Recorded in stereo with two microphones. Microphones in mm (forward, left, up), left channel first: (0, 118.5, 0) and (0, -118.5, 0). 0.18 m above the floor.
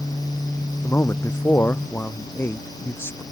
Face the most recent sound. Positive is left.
turn(degrees=10)  # may be behind; listen again after turning